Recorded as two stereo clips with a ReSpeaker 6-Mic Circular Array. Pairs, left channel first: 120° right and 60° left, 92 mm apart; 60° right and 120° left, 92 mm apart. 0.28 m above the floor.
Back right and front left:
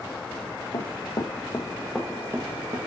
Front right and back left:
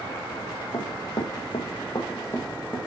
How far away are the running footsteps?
About 0.9 m.